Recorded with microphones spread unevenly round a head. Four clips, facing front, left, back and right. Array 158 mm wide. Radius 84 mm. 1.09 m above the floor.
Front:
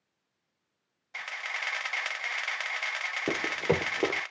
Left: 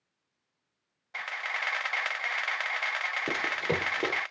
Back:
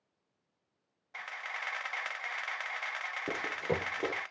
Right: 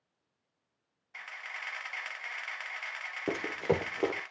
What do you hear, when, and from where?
1.1 s a camera shutter: 70° left, 0.7 m
3.3 s running footsteps: straight ahead, 1.4 m